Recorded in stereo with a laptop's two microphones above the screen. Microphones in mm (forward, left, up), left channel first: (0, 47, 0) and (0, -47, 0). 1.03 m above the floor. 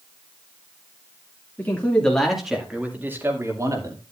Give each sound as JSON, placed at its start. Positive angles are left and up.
{"t": 1.6, "sound": "a man speaking", "side_deg": 20, "distance_m": 2.5}